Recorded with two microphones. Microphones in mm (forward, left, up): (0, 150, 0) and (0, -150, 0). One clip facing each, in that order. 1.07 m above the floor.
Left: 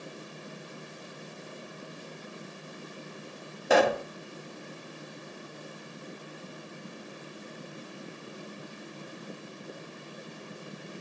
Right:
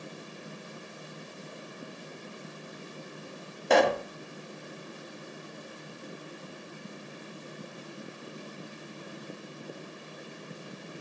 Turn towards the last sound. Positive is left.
turn(degrees=0)  # may be behind; listen again after turning